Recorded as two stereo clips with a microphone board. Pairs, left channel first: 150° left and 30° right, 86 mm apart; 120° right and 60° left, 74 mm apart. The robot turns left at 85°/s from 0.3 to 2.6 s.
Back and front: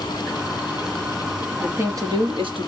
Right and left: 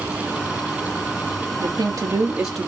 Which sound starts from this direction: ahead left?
A woman speaking, at 1.6 s.